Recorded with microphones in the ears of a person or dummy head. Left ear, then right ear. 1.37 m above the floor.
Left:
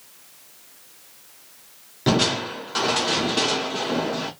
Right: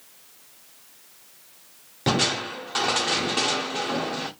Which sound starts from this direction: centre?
Crushing, at 2.1 s.